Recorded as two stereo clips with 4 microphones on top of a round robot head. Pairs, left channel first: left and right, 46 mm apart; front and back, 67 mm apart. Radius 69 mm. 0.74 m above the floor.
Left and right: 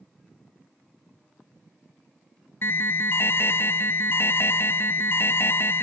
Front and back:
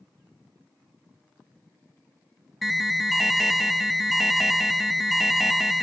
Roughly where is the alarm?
Left.